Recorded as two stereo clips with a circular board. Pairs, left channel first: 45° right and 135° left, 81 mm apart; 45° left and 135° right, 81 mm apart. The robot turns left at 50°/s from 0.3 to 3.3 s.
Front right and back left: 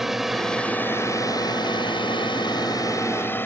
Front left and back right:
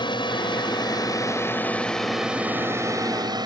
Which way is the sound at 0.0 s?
50° left.